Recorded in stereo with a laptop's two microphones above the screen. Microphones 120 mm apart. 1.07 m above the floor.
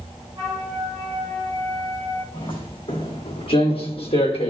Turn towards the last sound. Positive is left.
turn(degrees=55)  # may be behind; listen again after turning